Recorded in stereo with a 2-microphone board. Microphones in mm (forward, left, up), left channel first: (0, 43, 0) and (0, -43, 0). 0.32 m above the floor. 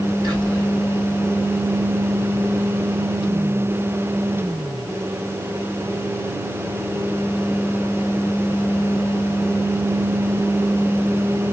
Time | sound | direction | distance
0.2 | whispering | 50° right (ahead or behind) | 2 m